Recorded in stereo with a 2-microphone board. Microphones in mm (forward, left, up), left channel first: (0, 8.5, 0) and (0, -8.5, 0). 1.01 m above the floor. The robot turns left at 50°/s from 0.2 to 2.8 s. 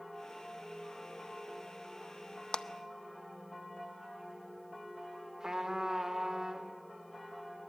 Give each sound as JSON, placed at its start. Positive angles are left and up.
{"t": 2.5, "sound": "a clap", "side_deg": 80, "distance_m": 0.6}
{"t": 5.4, "sound": "a trumpet", "side_deg": -35, "distance_m": 1.9}